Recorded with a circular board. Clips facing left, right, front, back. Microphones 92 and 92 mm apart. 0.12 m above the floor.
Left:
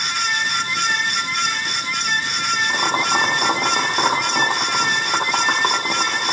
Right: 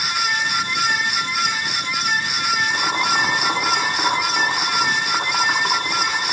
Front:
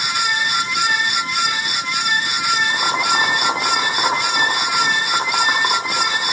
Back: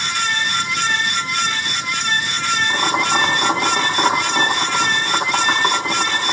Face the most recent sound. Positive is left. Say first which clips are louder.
# left 1 dB, back 1 dB
turn(degrees=95)